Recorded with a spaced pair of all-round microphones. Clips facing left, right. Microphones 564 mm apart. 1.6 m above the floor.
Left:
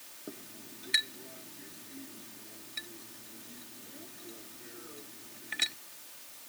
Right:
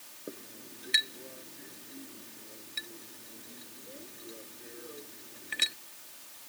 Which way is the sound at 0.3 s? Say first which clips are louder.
Right 1 dB; 10° left (ahead or behind).